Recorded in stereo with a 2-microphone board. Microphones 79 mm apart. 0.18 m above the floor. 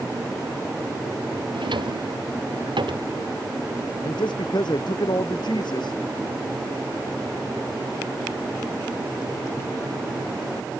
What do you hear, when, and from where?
1.5 s a drawer: 85° right
4.0 s a man speaking: 70° left (ahead or behind)